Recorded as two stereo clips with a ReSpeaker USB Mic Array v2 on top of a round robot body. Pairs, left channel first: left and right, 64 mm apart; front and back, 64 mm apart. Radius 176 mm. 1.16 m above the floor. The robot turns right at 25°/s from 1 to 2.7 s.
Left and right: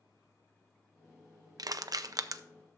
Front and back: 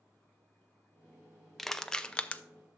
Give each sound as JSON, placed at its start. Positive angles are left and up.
{"t": 1.6, "sound": "crushing", "azimuth_deg": -90, "distance_m": 0.5}